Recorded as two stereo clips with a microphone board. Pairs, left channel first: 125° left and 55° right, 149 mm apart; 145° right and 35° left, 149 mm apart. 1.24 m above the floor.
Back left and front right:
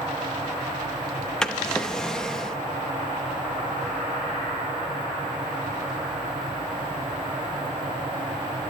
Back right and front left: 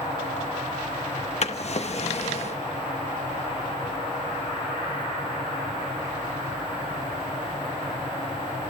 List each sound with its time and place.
1.4 s a drawer: 150° right, 0.7 m